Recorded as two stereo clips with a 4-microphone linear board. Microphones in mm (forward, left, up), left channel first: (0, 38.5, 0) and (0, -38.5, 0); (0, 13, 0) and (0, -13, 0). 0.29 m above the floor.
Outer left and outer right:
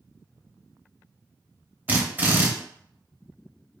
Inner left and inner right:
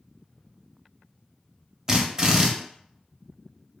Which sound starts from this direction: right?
A drill, at 1.9 s.